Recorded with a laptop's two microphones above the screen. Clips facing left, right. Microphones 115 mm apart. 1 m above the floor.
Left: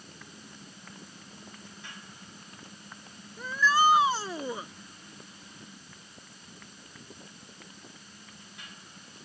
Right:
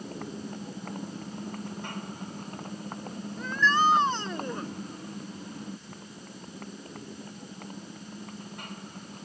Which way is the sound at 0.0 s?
55° right (ahead or behind).